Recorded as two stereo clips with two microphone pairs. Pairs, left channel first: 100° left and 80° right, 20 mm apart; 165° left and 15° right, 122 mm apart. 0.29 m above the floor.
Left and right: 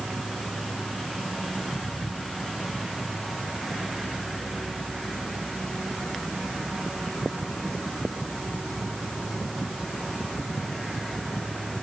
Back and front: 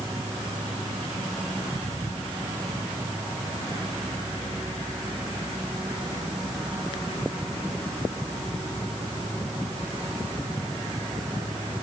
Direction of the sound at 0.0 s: 35° left.